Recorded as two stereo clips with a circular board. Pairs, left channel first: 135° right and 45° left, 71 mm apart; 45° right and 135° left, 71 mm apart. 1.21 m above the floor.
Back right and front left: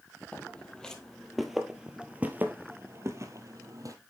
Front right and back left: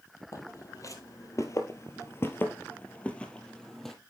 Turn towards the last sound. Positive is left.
turn(degrees=40)